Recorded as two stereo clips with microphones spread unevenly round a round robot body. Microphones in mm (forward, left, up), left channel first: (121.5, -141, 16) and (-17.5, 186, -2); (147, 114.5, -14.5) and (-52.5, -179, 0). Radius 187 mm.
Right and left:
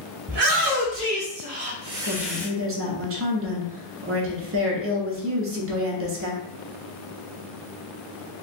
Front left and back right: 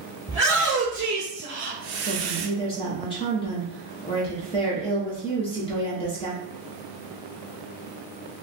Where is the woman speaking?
120° left, 0.9 m.